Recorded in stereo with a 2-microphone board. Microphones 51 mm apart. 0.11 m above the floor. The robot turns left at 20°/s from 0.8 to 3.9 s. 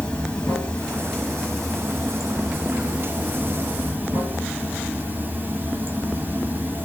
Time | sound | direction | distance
0.0 | running water | 20° left | 1.2 m